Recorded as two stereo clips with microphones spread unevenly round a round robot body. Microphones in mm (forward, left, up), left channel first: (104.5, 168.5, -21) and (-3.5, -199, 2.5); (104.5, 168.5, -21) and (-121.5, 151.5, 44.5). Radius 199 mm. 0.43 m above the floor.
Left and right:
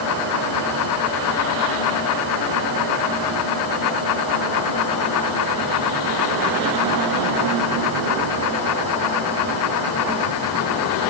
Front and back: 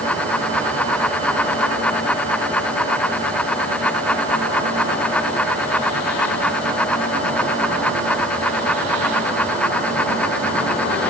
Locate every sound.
Only background noise.